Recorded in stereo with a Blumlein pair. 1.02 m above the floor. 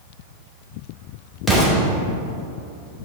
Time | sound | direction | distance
1.5 | an explosion | 5° left | 2.5 m